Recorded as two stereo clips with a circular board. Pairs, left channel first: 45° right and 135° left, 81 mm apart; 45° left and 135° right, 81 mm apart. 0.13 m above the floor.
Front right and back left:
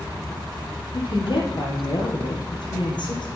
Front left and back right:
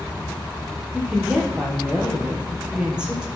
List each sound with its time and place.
0.9 s a woman speaking: 55° right, 3.5 m